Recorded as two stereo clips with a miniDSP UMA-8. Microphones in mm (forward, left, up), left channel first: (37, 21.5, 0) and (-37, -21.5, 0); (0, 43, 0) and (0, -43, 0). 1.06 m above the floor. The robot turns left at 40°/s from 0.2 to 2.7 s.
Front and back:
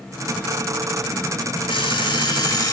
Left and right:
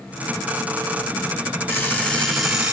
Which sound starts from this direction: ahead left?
An alarm clock, at 1.7 s.